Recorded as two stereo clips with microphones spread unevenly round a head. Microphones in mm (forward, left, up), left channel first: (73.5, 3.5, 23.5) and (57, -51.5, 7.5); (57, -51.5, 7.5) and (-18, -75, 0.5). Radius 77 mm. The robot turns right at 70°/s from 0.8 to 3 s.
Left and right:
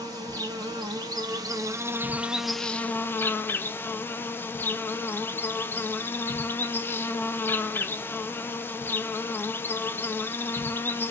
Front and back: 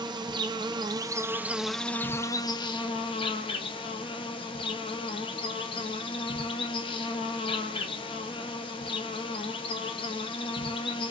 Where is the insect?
135° right, 0.7 m; by 11.1 s 20° left, 0.7 m.